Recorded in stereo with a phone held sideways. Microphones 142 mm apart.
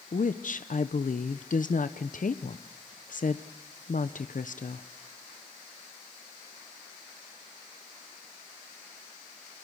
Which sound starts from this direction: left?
A woman speaking, at 0.1 s.